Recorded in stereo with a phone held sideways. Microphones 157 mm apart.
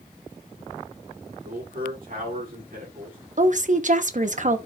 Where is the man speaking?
65° right (ahead or behind), 8 m.